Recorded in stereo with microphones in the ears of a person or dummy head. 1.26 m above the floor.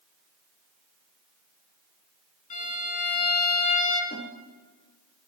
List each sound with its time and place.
2.5 s a violin: 55° left (ahead or behind), 4 m
4.1 s a snare drum: 60° left (ahead or behind), 3 m